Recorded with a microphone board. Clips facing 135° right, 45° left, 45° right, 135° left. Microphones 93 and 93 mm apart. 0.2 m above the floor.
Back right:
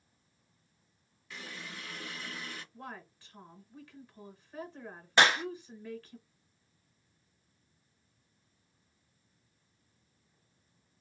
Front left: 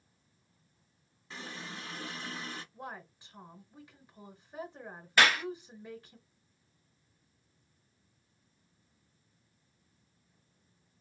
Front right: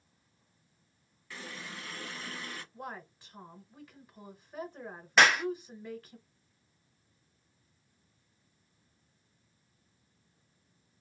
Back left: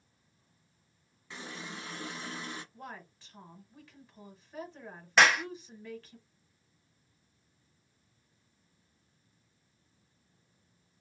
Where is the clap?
135° right, 0.8 m.